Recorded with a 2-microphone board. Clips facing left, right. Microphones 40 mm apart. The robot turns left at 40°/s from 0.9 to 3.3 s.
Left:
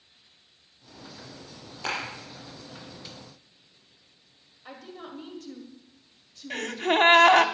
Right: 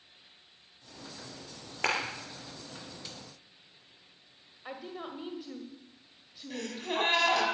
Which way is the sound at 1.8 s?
65° right (ahead or behind).